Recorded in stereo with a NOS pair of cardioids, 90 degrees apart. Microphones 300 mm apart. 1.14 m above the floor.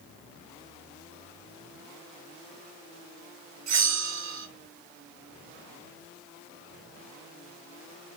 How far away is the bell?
About 0.7 m.